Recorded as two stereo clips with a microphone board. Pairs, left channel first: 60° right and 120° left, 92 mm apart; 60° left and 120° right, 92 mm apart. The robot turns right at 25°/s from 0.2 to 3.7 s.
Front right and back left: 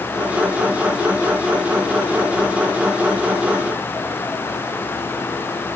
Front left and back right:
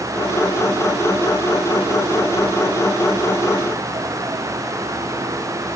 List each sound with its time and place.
Only background noise.